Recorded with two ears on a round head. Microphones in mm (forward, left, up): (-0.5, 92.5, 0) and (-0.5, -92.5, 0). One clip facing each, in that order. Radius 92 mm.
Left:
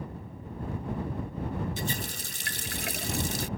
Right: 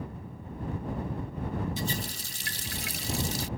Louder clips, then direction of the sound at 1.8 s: Even; 45° left (ahead or behind).